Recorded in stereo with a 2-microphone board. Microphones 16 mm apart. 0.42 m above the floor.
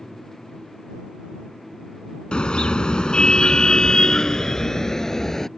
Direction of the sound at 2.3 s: 80° left.